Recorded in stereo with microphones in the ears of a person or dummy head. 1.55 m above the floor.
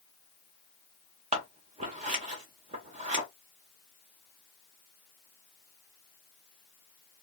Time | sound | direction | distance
1.3 | scissors | 35° right (ahead or behind) | 0.6 m